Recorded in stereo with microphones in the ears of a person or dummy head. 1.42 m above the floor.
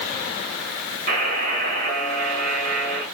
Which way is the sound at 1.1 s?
55° right (ahead or behind).